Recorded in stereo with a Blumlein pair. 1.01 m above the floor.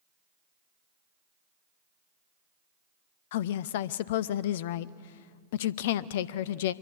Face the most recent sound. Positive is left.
turn(degrees=55)